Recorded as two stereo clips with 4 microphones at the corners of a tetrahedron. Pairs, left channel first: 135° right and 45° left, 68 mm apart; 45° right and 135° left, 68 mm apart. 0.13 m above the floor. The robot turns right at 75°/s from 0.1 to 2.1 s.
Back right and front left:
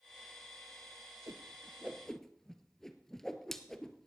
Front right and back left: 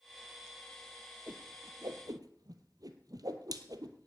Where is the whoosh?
80° left, 1.1 m; by 4.1 s 140° left, 1.1 m.